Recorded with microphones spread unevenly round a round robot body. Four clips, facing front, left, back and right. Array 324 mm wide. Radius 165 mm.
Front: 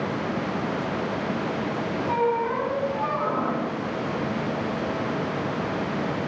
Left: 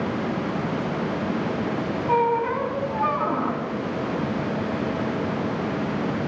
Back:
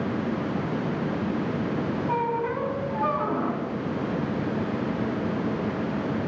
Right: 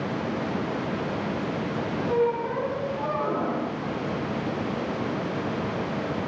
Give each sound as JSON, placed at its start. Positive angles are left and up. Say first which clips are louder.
{"t": 2.1, "sound": "a squeak", "louder": "left 4 dB, front 5 dB", "azimuth_deg": 80, "distance_m": 3.0}